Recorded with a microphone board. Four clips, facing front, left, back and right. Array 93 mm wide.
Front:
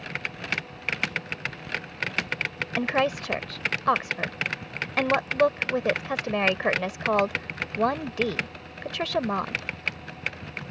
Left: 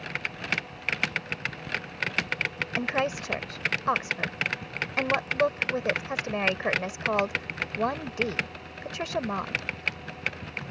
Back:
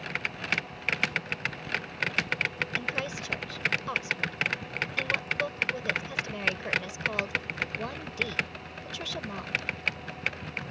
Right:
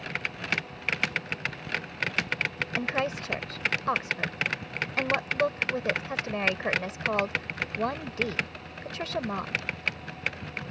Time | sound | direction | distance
2.8 | a woman speaking | 10° left | ?